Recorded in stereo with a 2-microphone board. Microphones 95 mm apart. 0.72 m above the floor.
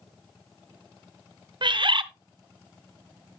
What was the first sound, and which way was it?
A bird, 60° right (ahead or behind).